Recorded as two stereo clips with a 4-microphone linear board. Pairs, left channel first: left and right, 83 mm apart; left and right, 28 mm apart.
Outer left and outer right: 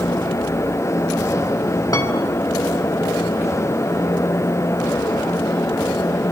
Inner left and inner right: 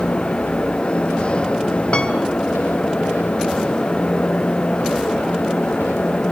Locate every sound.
1.9 s a piano: 45° left (ahead or behind), 3 m